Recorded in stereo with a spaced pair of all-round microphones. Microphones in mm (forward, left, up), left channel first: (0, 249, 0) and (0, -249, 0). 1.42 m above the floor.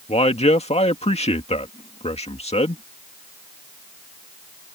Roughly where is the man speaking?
Centre.